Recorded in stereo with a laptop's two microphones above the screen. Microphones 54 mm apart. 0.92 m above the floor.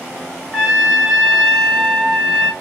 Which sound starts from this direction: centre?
A trumpet, at 0.5 s.